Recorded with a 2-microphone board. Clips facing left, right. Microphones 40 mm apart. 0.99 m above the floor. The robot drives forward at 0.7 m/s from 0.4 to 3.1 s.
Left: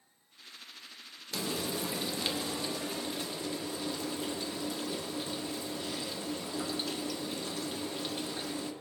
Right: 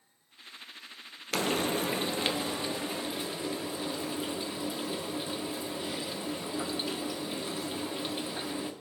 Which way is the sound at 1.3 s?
60° right (ahead or behind).